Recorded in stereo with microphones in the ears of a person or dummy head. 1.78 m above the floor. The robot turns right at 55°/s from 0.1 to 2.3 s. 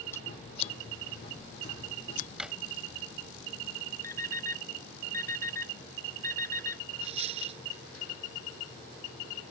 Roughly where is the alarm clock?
Centre.